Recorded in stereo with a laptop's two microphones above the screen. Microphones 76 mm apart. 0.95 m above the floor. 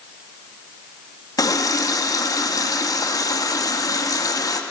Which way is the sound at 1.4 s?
50° left (ahead or behind).